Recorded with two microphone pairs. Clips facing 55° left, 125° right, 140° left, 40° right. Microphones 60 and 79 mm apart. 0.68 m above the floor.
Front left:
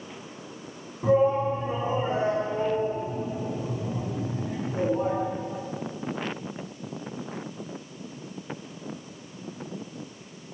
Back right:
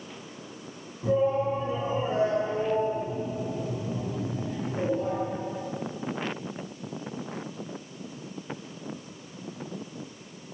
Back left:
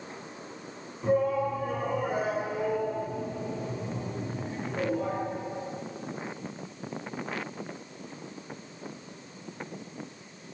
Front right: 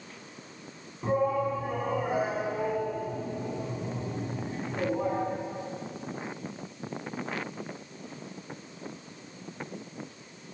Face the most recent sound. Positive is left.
turn(degrees=25)